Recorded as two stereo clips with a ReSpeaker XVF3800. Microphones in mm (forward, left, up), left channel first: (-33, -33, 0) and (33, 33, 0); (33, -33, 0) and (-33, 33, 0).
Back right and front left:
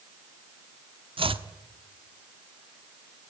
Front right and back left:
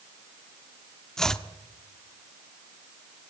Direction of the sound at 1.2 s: 40° left.